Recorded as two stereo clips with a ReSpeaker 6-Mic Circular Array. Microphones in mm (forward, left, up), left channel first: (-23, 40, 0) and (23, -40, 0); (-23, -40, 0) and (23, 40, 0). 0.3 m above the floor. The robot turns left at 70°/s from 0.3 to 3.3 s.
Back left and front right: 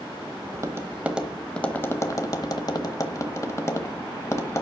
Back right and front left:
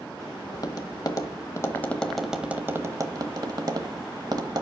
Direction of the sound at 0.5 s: 95° right.